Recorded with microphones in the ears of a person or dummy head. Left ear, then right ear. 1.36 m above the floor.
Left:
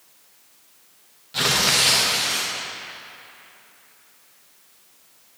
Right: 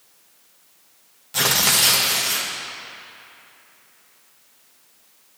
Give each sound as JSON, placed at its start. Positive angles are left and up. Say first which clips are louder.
{"t": 1.3, "sound": "tearing paper", "louder": "even", "side_deg": -20, "distance_m": 1.2}